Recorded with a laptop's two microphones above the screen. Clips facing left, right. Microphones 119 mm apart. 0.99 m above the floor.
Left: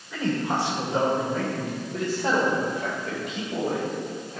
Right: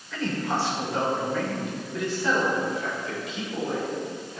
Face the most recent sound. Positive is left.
turn(degrees=60)  # may be behind; listen again after turning